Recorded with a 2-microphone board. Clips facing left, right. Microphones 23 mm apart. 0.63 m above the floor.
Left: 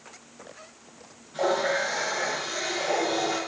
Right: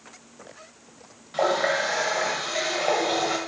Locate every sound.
1.3 s a running tap: 65° right (ahead or behind), 1.9 m